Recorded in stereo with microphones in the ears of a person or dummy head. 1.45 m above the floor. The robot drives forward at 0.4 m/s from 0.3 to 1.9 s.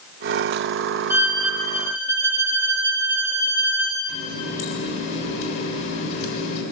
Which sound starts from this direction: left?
A running tap, at 4.1 s.